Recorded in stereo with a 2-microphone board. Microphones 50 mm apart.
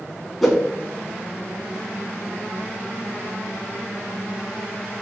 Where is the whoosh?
Centre (ahead or behind), 2 m.